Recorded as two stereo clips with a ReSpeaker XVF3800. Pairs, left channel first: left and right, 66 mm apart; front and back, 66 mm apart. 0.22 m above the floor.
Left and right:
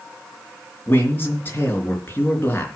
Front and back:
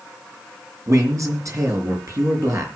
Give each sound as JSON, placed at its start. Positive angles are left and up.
{"t": 0.9, "sound": "a man speaking", "azimuth_deg": 145, "distance_m": 4.0}